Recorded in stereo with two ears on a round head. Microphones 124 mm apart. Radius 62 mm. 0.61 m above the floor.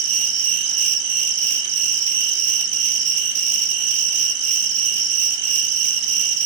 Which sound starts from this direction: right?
An insect, at 0.0 s.